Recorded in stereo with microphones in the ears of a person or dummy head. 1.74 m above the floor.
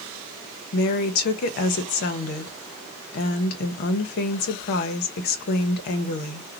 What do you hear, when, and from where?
0.7 s a woman speaking: 50° left (ahead or behind), 0.7 m